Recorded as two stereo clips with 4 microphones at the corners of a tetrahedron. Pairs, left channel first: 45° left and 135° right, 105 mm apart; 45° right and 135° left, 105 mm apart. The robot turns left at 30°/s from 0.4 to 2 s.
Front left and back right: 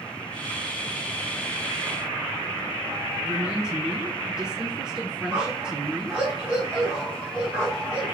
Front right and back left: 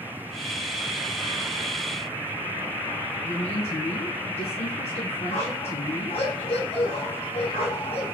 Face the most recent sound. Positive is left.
turn(degrees=-60)